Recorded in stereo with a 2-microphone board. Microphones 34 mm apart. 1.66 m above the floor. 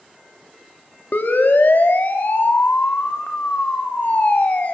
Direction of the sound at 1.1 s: 75° left (ahead or behind).